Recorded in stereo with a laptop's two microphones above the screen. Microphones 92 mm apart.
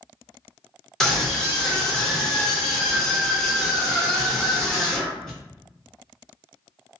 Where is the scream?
5° left (ahead or behind), 1.2 m.